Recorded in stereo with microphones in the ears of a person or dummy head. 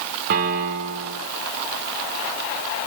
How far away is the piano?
About 1.9 m.